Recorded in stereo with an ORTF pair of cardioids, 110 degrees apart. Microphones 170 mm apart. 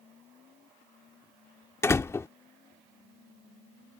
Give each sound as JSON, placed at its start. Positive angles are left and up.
{"t": 1.8, "sound": "a door slam", "azimuth_deg": 15}